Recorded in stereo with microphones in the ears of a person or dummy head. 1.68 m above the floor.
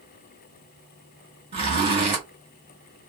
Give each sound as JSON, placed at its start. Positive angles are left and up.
{"t": 1.5, "sound": "a zipper", "side_deg": -30, "distance_m": 1.4}